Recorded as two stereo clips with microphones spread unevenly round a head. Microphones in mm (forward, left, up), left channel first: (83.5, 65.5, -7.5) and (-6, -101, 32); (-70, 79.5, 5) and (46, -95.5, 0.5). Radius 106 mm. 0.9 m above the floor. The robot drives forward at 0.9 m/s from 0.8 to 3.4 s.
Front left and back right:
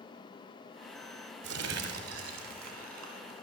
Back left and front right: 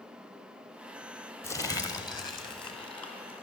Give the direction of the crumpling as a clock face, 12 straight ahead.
5 o'clock.